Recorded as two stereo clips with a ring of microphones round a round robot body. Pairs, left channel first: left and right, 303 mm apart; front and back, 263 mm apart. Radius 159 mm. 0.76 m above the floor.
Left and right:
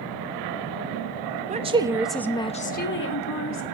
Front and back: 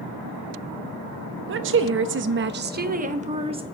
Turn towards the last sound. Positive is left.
turn(degrees=110)